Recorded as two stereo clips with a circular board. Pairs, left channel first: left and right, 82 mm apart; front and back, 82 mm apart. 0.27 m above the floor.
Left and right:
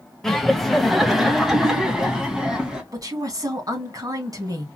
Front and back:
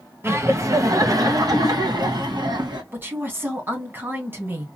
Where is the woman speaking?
120° right, 2.5 m.